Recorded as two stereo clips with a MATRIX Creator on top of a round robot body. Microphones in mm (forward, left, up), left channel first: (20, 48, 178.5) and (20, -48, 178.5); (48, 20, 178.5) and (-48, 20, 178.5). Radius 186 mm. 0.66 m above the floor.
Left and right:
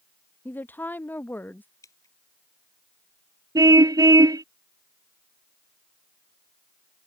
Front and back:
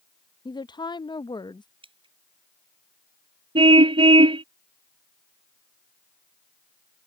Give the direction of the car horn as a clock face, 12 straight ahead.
5 o'clock.